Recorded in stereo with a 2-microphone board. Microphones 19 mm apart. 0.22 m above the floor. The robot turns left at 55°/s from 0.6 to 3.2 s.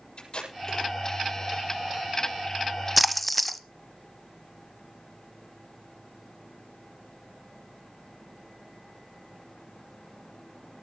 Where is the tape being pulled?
55° left (ahead or behind), 6.5 m; by 0.9 s 40° left (ahead or behind), 6.5 m.